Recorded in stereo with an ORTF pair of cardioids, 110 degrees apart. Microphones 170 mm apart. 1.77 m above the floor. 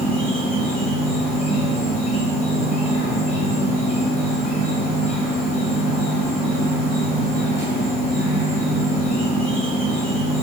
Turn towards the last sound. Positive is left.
turn(degrees=40)